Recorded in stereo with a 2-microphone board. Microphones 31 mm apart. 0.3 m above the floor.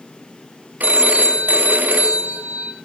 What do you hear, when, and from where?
0.8 s a phone ringing: 65° right (ahead or behind), 1.1 m